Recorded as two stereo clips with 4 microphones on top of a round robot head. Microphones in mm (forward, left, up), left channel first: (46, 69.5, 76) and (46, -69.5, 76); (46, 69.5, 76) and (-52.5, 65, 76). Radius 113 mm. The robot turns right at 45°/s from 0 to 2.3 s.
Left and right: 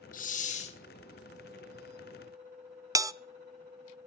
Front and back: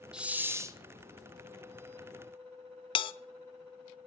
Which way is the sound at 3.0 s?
25° right.